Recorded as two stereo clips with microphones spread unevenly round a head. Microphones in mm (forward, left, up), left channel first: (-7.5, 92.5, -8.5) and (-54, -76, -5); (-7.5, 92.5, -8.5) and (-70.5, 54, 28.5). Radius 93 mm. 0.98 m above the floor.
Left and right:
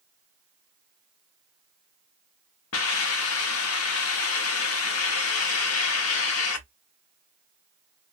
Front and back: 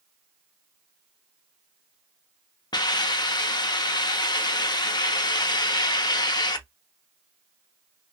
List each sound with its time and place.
2.7 s a hiss: 65° left, 0.6 m